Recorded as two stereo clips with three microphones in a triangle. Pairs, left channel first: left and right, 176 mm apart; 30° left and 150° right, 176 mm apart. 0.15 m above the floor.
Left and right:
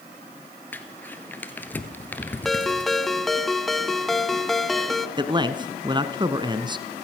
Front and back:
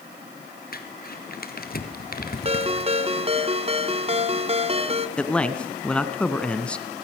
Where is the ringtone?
Straight behind, 0.9 m.